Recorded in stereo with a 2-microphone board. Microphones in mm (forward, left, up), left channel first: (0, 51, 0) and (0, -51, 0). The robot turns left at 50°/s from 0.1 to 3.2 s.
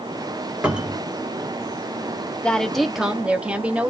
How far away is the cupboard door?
About 1.0 m.